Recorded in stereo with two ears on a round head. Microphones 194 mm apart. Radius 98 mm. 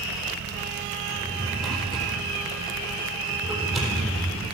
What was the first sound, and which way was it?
A drawer, centre (ahead or behind).